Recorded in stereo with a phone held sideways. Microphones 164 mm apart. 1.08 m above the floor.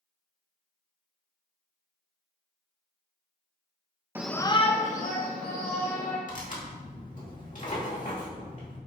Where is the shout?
15° right (ahead or behind), 0.6 m; by 6.2 s 65° left (ahead or behind), 3 m.